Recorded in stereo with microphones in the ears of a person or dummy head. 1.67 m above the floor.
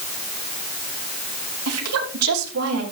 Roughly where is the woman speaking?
Right.